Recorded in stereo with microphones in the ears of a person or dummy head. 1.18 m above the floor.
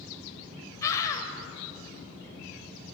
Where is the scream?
20° left (ahead or behind), 5 m.